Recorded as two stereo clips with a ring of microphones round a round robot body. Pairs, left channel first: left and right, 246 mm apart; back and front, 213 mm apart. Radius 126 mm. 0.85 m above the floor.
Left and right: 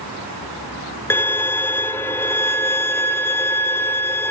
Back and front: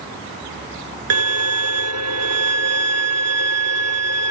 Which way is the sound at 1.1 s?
10° left.